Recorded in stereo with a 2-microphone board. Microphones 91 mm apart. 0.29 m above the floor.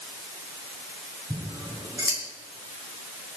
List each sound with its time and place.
1.3 s scissors: 40° right (ahead or behind), 5 m